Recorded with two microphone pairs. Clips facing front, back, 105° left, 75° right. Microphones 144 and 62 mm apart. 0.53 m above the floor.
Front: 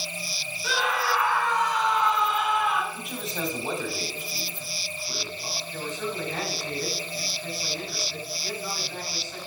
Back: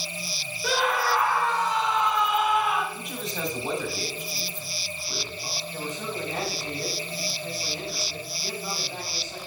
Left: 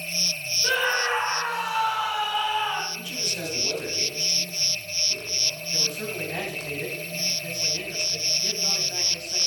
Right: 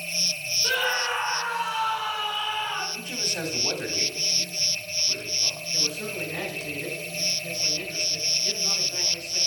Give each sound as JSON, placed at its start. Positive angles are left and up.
{"t": 0.6, "sound": "a scream", "azimuth_deg": 165, "distance_m": 1.7}
{"t": 2.9, "sound": "a man speaking", "azimuth_deg": -90, "distance_m": 1.7}
{"t": 5.7, "sound": "a man speaking", "azimuth_deg": 110, "distance_m": 4.0}